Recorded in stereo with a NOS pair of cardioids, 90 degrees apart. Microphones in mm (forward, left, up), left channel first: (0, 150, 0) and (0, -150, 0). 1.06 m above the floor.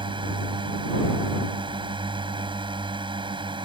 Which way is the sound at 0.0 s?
15° right.